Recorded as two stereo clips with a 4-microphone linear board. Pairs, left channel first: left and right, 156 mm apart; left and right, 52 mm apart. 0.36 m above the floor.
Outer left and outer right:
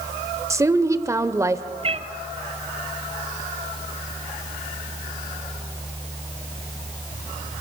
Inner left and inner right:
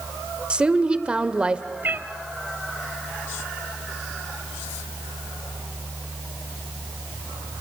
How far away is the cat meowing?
About 1.0 m.